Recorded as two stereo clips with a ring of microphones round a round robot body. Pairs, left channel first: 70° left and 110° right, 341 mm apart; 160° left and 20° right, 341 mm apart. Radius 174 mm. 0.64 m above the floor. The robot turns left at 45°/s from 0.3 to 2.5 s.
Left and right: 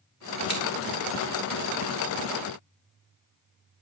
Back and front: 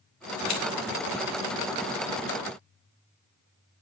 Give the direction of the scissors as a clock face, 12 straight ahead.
6 o'clock.